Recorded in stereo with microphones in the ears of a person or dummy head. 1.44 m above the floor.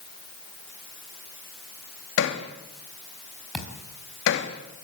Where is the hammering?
60° left (ahead or behind), 2.5 m.